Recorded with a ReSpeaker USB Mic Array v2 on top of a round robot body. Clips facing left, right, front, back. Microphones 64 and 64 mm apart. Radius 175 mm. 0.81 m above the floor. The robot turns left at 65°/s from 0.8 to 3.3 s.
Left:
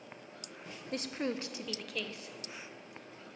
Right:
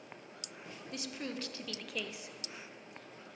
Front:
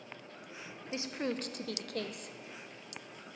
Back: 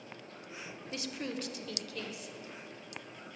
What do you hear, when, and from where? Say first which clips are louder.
0.9 s a woman speaking: left 6 dB, front 3 dB; 65° left, 0.5 m; by 2.4 s 30° right, 0.5 m